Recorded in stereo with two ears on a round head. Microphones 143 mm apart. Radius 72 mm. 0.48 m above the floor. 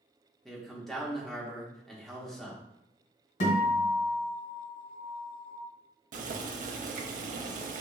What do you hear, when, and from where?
0.5 s a man speaking: 5° left (ahead or behind), 0.7 m
3.4 s a guitar: 55° left (ahead or behind), 2.0 m
6.1 s boiling: 55° right (ahead or behind), 0.5 m